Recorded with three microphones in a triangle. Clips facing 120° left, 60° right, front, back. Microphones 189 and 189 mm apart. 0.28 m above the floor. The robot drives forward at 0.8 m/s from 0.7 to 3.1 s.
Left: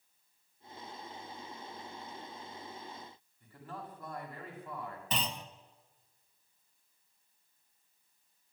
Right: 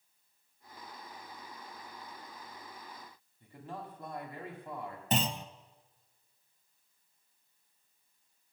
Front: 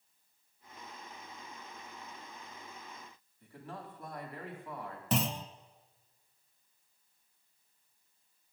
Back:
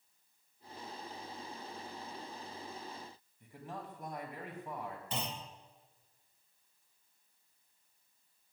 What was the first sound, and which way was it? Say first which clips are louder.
A man speaking: right 2 dB, even; 115° right.